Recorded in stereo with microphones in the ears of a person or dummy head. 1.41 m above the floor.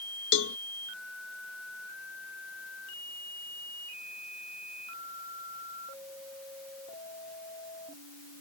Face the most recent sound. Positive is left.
turn(degrees=75)  # may be behind; listen again after turning